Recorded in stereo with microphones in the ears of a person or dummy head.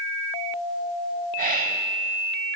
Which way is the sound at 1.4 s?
50° right (ahead or behind).